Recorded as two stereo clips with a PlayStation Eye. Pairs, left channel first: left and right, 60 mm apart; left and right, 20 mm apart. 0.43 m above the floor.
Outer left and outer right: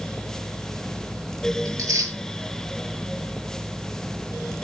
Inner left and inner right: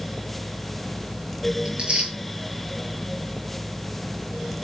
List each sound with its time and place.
1.6 s tearing paper: 65° right (ahead or behind), 8 m